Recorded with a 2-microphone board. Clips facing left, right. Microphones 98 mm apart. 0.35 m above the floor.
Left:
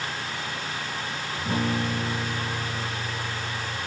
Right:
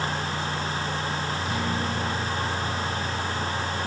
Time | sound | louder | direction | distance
1.4 | a guitar | left 5 dB | 40° left (ahead or behind) | 7 m